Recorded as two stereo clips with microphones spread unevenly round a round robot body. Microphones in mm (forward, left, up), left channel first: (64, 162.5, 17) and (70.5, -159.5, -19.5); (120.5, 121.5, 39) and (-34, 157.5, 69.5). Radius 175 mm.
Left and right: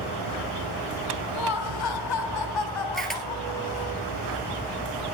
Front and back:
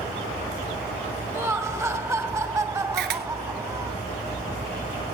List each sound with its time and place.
1.3 s laughter: 90° left, 2.5 m; by 3.9 s 95° left, 4 m
2.9 s a camera shutter: straight behind, 1.4 m